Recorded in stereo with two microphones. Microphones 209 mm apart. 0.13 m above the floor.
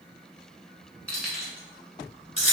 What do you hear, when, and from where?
1.1 s keys jangling: 5° left (ahead or behind), 0.9 m; by 2.5 s 35° right (ahead or behind), 1.2 m